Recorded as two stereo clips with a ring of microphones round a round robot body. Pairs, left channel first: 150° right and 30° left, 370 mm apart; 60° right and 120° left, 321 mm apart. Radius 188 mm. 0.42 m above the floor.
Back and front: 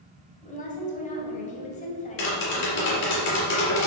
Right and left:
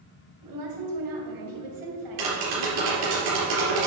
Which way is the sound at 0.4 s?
140° left.